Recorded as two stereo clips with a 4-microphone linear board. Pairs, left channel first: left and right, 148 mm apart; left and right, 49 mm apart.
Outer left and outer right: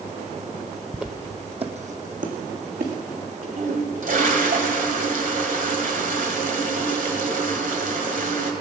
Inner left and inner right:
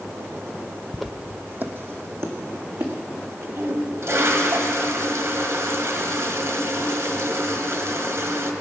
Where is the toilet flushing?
65° right (ahead or behind), 1.5 m.